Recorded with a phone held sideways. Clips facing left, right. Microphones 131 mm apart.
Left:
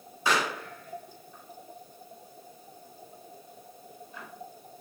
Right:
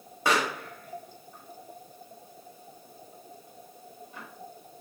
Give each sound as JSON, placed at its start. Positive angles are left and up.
{"t": 0.2, "sound": "a pop", "side_deg": -55, "distance_m": 0.8}